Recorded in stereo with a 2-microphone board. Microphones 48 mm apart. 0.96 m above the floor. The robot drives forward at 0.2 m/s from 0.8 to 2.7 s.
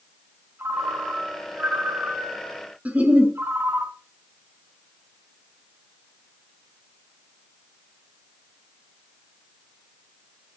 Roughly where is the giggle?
Right.